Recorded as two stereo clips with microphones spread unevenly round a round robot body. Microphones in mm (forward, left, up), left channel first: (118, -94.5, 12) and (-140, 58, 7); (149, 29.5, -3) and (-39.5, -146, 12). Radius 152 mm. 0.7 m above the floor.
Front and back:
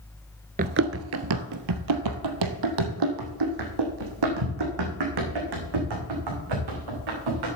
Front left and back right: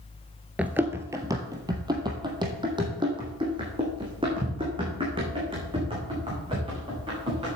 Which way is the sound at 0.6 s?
150° left.